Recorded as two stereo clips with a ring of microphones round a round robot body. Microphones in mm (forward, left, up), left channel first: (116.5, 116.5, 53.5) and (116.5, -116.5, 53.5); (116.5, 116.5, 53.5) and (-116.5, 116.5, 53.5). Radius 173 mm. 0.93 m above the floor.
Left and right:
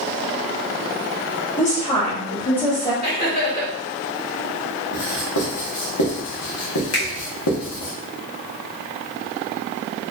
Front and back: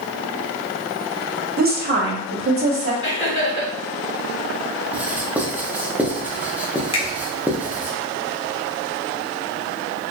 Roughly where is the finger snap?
Left.